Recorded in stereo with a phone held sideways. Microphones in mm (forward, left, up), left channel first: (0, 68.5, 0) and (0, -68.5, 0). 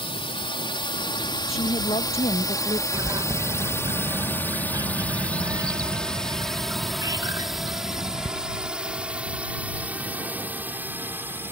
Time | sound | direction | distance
0.0 | a drone | 45° left (ahead or behind) | ?
1.5 | a woman speaking | 50° left (ahead or behind) | ?
2.9 | a bird | 30° right (ahead or behind) | ?